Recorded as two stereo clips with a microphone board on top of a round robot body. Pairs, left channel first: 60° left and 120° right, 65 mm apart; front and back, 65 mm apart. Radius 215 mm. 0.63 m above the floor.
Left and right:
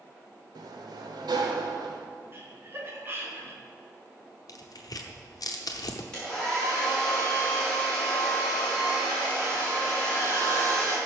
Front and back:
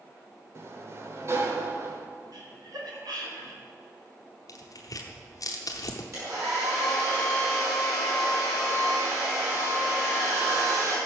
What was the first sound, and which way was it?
A sliding door, 130° right.